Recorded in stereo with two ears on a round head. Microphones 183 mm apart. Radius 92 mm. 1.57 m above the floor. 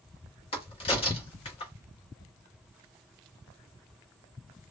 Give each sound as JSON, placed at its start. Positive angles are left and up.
{"t": 0.5, "sound": "a crack", "side_deg": 30, "distance_m": 1.1}